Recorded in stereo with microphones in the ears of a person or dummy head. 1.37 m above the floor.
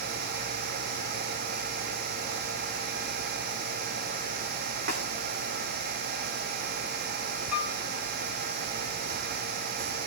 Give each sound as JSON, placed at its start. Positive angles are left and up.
{"t": 4.9, "sound": "a snare drum", "side_deg": -60, "distance_m": 1.8}
{"t": 7.5, "sound": "a piano", "side_deg": -5, "distance_m": 2.0}